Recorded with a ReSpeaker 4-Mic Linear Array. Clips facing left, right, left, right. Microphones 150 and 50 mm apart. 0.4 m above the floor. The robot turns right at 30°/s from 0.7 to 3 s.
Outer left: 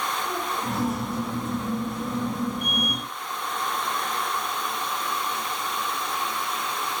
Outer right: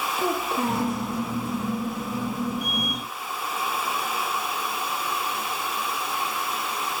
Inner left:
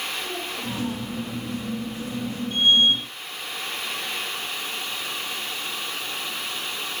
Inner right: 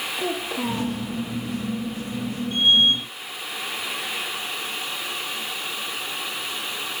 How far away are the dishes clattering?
No dishes clattering in this recording.